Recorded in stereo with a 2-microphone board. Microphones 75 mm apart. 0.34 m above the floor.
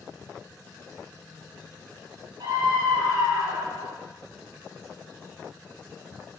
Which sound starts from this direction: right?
A scream, at 2.4 s.